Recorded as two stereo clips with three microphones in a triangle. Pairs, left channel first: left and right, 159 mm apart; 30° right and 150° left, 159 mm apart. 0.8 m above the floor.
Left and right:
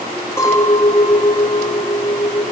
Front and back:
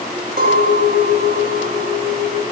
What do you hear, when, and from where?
0.4 s a clink: 160° left, 2.5 m